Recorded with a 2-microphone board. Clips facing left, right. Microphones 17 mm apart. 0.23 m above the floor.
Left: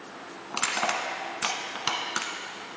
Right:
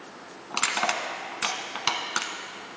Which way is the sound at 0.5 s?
25° right (ahead or behind).